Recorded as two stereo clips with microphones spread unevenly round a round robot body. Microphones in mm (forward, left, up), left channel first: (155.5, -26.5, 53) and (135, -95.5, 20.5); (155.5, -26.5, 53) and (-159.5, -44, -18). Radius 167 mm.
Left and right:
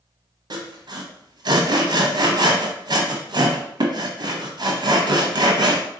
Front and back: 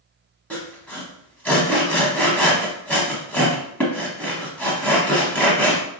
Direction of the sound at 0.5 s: 70° right.